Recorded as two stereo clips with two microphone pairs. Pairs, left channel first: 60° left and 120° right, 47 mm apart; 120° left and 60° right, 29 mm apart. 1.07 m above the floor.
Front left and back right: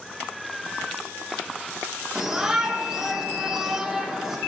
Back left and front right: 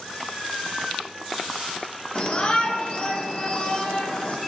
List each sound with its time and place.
2.1 s a shout: 165° left, 3 m